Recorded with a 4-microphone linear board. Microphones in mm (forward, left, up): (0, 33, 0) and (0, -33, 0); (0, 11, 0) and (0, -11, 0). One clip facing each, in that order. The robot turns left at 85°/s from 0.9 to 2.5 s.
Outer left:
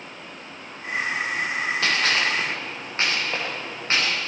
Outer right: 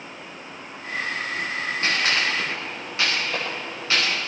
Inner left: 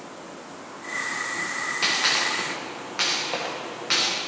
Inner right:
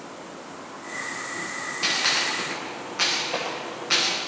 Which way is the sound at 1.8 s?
85° left.